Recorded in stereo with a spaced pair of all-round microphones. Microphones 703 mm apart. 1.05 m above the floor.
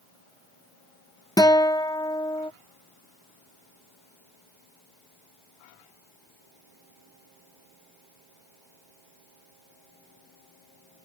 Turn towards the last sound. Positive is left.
turn(degrees=5)  # may be behind; listen again after turning